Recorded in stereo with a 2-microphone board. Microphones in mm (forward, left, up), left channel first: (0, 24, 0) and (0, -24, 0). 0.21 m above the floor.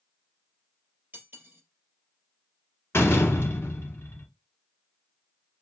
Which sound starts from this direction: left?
A door slam, at 2.9 s.